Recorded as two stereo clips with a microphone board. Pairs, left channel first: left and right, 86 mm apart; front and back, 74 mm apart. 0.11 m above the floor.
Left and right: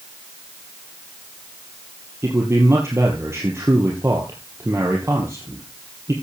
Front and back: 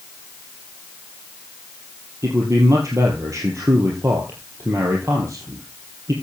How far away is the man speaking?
About 2.5 m.